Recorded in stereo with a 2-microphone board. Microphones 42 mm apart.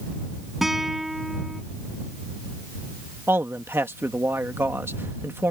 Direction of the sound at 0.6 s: 10° right (ahead or behind).